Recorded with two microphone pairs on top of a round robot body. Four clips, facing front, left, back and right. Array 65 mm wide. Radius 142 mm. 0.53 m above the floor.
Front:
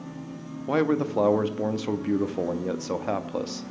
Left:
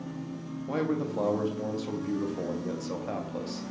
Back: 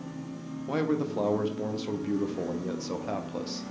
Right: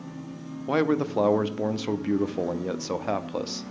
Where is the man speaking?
45° right, 0.8 m.